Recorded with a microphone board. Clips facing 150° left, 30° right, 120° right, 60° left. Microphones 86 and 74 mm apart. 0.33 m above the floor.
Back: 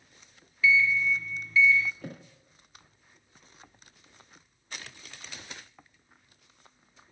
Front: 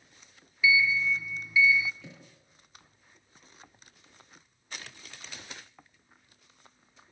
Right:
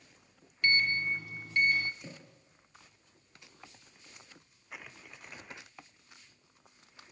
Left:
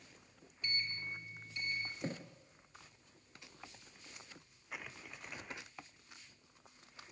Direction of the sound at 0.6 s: 110° right.